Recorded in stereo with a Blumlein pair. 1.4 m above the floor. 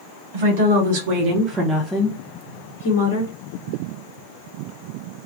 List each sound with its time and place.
0.3 s a woman speaking: 60° right, 1.4 m; by 3.3 s 70° left, 1.2 m